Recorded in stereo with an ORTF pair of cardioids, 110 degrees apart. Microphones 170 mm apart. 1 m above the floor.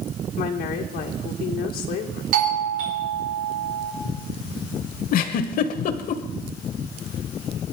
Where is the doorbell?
60° right, 4.5 m.